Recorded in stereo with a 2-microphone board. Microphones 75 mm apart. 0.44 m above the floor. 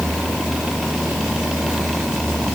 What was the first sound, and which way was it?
Only background noise.